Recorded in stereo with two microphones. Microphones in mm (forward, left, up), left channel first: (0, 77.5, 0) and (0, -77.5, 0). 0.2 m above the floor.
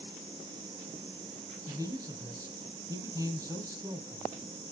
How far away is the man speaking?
About 1.0 m.